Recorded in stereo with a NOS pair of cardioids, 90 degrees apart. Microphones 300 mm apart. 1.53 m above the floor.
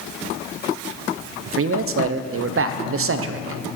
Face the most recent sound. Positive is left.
turn(degrees=-50)